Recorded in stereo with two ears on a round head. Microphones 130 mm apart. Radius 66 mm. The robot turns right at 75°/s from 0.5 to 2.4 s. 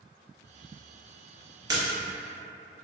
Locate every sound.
1.7 s a splash: 25° right (ahead or behind), 0.6 m; by 2.0 s 10° right (ahead or behind), 0.6 m